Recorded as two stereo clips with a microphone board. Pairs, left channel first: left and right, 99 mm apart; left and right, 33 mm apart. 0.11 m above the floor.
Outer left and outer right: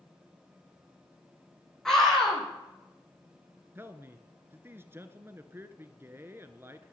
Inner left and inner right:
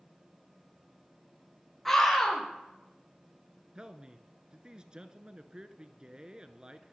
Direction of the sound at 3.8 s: 25° right (ahead or behind).